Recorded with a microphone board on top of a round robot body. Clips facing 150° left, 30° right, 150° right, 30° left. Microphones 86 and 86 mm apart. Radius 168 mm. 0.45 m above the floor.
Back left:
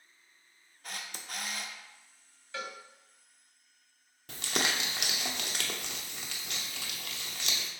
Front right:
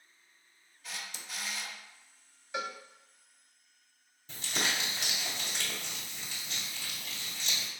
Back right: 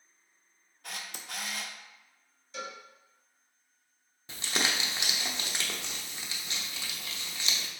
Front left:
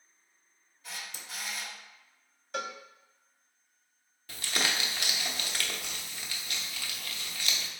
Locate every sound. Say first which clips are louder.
0.8 s a camera shutter: back left 1 dB, back right 2 dB; 175° right, 0.6 m
2.5 s a cowbell: front right 3 dB, front left 4 dB; 40° left, 0.6 m
4.3 s crumpling: back left 2 dB, back right 1 dB; 145° left, 0.8 m